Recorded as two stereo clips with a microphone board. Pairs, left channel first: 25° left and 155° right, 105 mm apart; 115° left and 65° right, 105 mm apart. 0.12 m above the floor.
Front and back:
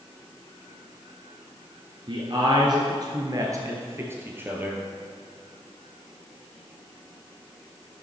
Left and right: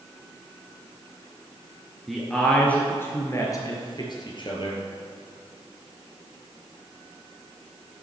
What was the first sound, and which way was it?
A man speaking, 160° right.